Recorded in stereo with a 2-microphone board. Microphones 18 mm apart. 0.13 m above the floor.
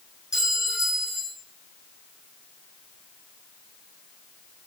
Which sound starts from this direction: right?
A clink, at 0.3 s.